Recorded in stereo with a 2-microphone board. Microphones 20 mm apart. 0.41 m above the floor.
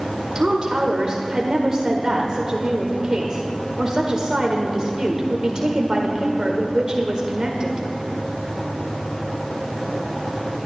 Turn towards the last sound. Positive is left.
turn(degrees=-35)  # may be behind; listen again after turning